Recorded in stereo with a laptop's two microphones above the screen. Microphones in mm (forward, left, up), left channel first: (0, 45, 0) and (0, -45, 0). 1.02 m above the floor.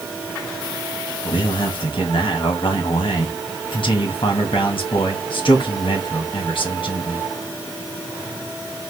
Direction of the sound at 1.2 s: 65° left (ahead or behind).